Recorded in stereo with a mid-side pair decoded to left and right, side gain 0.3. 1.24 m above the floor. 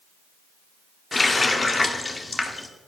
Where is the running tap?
35° left, 1.8 m.